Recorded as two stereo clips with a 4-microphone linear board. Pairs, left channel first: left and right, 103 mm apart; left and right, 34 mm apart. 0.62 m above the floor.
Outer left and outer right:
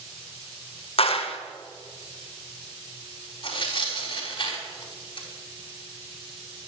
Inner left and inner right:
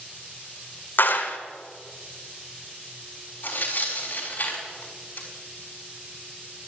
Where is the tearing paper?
45° left (ahead or behind), 4 m.